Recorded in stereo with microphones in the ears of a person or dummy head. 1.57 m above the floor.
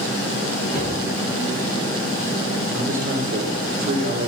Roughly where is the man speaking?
Right.